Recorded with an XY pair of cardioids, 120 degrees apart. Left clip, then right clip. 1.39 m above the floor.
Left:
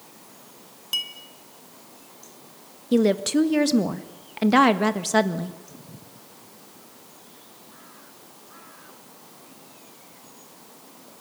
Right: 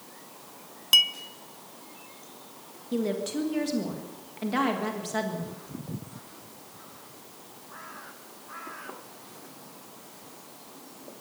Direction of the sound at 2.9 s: 55° left.